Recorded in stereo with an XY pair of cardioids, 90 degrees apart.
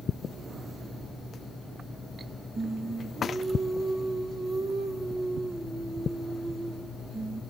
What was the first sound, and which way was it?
Singing, 55° right.